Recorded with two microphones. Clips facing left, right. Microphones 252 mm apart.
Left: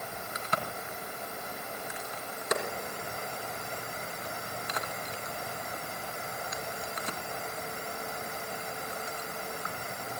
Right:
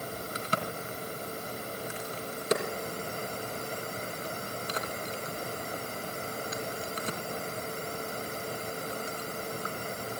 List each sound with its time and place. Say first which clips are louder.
0.3 s a crack: right 1 dB; 35° right (ahead or behind), 3 m